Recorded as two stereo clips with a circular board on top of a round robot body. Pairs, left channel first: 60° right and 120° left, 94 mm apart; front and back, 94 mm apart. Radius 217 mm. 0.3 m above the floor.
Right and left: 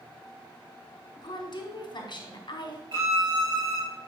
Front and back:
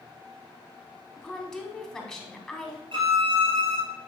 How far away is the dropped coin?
No dropped coin in this recording.